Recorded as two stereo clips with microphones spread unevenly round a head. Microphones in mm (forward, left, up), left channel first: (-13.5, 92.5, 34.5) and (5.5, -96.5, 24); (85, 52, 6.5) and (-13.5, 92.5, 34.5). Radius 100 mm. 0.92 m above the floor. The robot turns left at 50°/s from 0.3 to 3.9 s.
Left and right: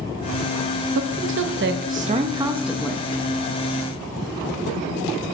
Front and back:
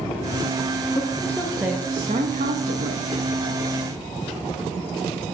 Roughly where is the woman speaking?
Right.